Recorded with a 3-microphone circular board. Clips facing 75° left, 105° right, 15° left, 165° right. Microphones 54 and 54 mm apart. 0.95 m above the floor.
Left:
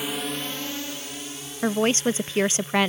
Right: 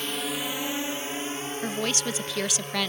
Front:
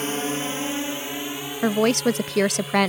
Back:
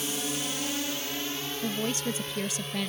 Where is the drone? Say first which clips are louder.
Left 1 dB, front 7 dB; 5° right; by 2.9 s 70° right.